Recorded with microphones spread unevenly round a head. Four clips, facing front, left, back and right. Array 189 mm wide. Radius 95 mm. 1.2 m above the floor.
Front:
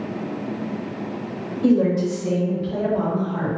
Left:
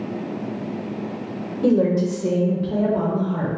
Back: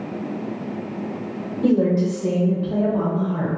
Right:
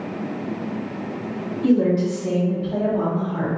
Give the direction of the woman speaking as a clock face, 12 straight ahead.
8 o'clock.